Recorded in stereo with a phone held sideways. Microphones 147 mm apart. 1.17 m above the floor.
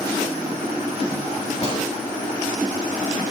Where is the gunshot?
45° left (ahead or behind), 1.5 m.